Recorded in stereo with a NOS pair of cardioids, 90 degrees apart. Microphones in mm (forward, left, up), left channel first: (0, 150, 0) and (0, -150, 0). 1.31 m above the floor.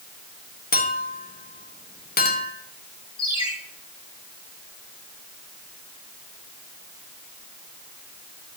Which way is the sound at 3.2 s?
15° left.